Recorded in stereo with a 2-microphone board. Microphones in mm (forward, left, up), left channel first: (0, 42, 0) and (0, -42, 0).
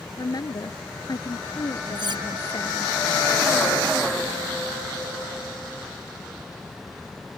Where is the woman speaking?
50° left (ahead or behind).